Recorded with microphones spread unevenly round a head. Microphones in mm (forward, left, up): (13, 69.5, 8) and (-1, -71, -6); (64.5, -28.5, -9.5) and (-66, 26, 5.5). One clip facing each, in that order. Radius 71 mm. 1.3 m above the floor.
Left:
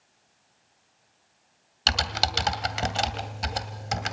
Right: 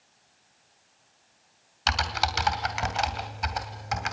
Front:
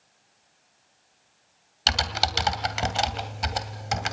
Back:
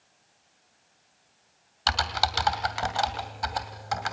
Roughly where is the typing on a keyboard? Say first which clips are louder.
Right 1 dB, even; ahead left.